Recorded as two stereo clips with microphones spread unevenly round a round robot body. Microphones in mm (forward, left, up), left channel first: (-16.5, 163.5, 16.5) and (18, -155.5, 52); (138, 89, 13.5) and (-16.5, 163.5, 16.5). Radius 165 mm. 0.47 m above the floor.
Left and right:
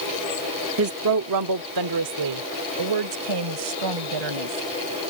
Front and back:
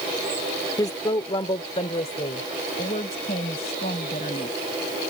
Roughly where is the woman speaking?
Right.